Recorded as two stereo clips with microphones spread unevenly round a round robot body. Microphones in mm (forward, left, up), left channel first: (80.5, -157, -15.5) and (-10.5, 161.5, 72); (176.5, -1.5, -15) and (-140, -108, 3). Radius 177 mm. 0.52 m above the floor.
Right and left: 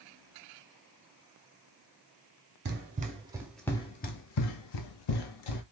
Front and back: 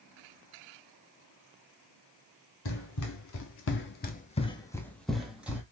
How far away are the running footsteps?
About 0.8 m.